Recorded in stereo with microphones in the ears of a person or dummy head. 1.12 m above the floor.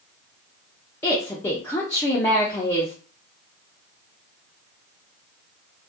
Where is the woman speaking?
5° left (ahead or behind), 0.6 m.